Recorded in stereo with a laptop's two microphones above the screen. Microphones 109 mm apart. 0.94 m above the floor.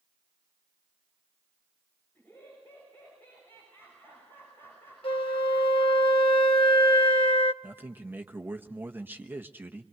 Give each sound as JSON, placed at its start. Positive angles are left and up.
{"t": 2.1, "sound": "laughter", "side_deg": 20, "distance_m": 5.5}
{"t": 5.0, "sound": "a flute", "side_deg": 50, "distance_m": 0.9}
{"t": 7.6, "sound": "a man speaking", "side_deg": -15, "distance_m": 1.1}